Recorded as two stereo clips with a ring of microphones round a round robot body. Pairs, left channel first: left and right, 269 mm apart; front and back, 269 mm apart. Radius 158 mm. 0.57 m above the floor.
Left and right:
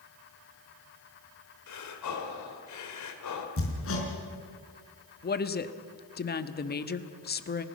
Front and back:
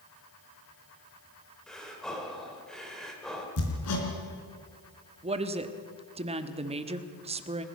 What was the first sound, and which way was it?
Breathing, 90° left.